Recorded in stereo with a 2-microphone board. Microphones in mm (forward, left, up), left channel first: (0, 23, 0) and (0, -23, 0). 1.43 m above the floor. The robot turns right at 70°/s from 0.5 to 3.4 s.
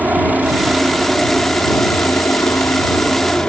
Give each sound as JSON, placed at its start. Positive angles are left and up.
{"t": 0.0, "sound": "a helicopter", "azimuth_deg": -40}